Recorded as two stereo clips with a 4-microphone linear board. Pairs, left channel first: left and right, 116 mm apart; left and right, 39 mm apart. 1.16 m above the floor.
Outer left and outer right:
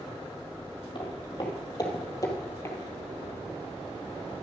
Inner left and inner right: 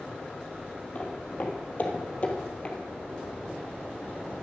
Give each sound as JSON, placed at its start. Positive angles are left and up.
{"t": 0.9, "sound": "footsteps", "side_deg": 40, "distance_m": 2.5}